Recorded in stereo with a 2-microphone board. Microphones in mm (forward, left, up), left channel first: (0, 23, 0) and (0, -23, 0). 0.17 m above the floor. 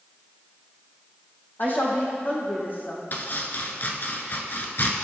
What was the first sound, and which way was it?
A woman speaking, 45° left (ahead or behind).